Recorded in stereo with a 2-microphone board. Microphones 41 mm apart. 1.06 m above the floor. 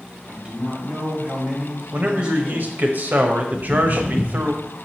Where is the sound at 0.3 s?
25° right (ahead or behind), 1.7 m.